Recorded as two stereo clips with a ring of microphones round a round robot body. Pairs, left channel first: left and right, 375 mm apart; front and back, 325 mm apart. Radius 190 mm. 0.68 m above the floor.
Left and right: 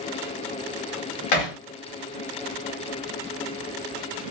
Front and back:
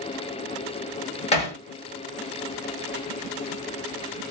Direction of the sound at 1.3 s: 70° left.